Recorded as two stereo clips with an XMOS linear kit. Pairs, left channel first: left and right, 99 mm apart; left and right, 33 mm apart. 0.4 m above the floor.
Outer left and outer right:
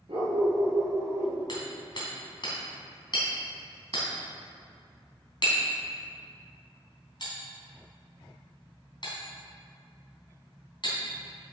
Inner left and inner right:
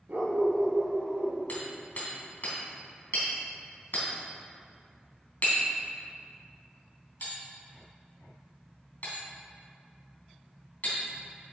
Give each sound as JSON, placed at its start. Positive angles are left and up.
{"t": 0.1, "sound": "a dog barking", "side_deg": -65, "distance_m": 2.5}
{"t": 1.5, "sound": "hammering", "side_deg": 50, "distance_m": 3.5}